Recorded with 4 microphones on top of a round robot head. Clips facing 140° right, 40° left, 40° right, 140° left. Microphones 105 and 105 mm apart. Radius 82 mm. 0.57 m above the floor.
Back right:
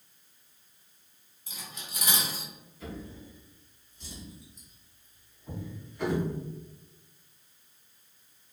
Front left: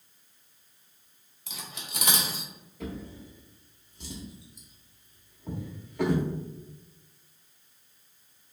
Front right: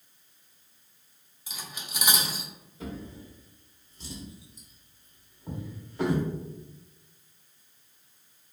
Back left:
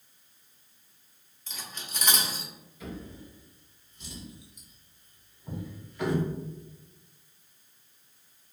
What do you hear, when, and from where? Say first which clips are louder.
1.5 s cutlery clinking: front left 2 dB, front right 1 dB; 40° left, 0.6 m
2.8 s a drawer: front left 3 dB, front right 2 dB; 20° left, 0.8 m